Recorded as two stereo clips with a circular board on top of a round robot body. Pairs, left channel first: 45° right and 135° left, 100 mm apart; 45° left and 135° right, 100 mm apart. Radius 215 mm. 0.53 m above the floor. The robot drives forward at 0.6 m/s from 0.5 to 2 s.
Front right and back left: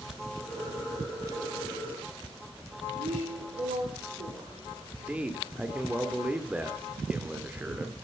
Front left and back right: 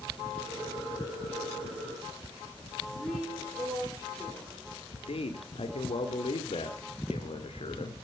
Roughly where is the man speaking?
Ahead left.